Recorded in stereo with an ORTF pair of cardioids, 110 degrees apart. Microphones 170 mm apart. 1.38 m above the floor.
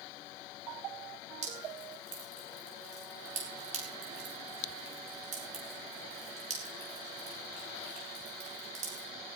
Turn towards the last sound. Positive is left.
turn(degrees=-45)